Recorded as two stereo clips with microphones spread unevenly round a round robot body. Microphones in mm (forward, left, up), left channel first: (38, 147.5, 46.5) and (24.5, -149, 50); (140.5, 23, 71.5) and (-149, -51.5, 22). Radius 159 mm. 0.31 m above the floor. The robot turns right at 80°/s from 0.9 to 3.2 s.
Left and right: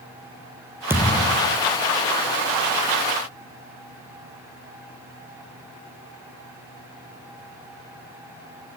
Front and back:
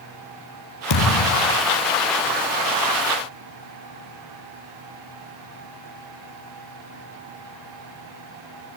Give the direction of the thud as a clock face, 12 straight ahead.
12 o'clock.